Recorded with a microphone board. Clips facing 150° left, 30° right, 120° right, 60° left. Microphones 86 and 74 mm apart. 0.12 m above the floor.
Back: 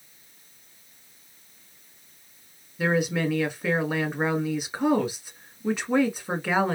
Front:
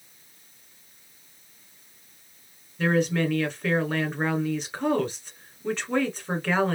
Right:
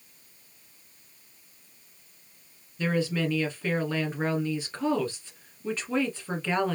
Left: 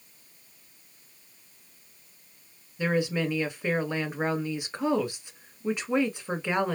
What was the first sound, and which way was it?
A woman speaking, 90° left.